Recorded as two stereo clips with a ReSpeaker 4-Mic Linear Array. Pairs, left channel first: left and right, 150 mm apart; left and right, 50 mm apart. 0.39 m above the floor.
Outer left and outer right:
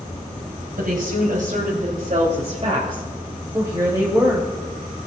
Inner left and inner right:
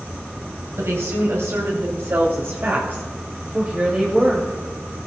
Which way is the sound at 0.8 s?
65° right (ahead or behind).